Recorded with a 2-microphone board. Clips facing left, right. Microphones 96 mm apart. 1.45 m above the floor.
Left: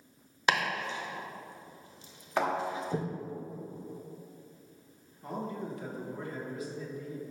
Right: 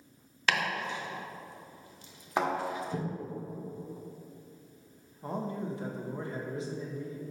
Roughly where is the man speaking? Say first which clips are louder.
Right 2 dB; right.